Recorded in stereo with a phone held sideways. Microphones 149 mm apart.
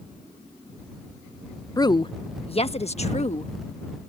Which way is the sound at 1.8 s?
25° left (ahead or behind).